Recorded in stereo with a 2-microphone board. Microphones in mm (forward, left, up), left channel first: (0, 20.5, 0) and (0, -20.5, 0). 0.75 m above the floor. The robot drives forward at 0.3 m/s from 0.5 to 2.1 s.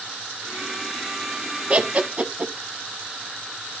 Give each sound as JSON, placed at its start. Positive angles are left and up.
{"t": 1.7, "sound": "laughter", "side_deg": -35, "distance_m": 1.2}